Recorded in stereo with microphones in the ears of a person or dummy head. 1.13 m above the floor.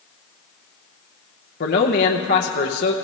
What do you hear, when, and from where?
1.6 s a man speaking: 50° left (ahead or behind), 0.6 m